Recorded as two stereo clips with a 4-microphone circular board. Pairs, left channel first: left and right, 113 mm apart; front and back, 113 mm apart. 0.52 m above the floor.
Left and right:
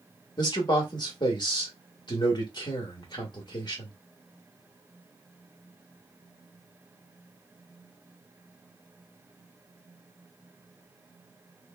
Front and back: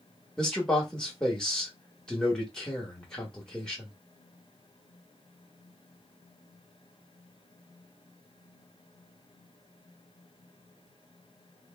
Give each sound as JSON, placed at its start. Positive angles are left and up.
{"t": 0.4, "sound": "a man speaking", "azimuth_deg": 80, "distance_m": 1.1}